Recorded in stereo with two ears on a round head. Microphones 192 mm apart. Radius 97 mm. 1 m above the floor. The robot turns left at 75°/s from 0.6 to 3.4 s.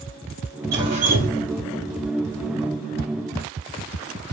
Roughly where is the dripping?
Ahead.